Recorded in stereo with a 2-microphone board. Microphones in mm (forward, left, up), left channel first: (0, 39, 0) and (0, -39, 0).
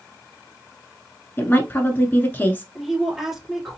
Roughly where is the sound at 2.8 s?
Centre.